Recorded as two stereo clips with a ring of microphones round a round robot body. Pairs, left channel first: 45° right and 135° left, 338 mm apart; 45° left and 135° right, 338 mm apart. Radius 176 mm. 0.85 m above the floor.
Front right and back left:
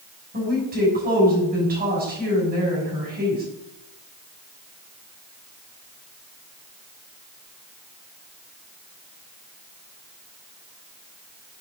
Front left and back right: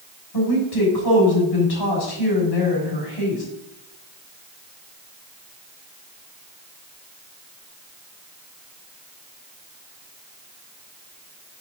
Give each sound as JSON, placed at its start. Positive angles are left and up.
{"t": 0.3, "sound": "a woman speaking", "azimuth_deg": 70, "distance_m": 6.5}